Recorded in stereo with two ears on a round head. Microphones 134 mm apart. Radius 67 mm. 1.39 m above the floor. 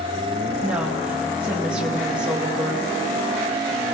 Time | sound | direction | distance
0.6 | a woman speaking | 5° right (ahead or behind) | 2 m